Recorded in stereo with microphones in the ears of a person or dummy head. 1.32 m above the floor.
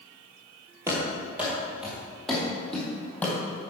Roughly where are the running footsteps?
Centre.